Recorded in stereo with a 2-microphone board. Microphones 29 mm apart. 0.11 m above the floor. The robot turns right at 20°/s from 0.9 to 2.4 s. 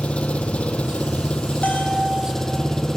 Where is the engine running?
130° left, 1.5 m; by 3.0 s 160° left, 1.5 m.